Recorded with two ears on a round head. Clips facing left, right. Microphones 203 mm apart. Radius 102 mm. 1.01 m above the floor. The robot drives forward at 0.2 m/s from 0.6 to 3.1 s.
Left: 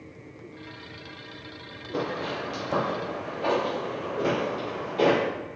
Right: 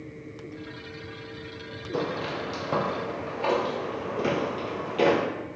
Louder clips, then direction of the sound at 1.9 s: Even; 25° right (ahead or behind).